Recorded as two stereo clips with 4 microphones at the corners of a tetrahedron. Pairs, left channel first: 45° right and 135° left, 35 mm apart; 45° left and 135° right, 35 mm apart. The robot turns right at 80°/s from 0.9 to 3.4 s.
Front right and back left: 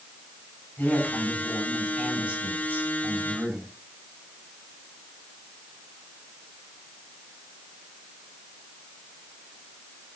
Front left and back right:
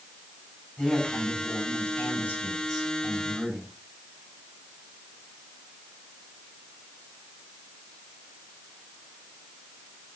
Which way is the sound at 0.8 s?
30° right.